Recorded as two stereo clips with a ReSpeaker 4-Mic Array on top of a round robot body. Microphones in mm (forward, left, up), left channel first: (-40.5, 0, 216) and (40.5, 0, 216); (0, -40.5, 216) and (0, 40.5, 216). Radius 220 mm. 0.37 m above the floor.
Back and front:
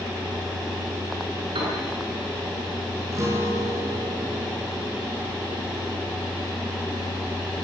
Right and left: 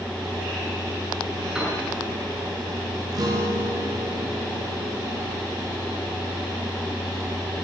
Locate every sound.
1.6 s a piano: 10° left, 9 m
3.1 s a guitar: 50° left, 7 m